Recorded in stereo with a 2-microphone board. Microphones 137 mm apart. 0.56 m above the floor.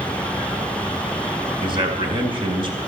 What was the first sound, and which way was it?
A man speaking, 35° right (ahead or behind).